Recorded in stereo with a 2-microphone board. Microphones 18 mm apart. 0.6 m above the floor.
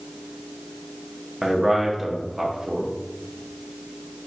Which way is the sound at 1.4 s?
15° right (ahead or behind).